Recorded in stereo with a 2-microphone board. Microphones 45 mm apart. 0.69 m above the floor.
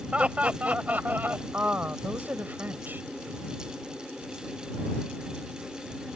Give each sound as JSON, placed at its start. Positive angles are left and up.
{"t": 0.1, "sound": "laughter", "side_deg": -25}
{"t": 1.5, "sound": "a woman speaking", "side_deg": -45}